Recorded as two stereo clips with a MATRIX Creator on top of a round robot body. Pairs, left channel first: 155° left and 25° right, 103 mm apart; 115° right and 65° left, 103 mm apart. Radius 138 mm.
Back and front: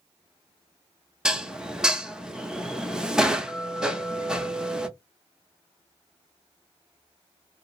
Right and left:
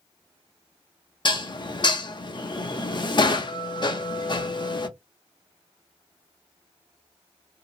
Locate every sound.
1.2 s dishes clattering: 105° right, 0.8 m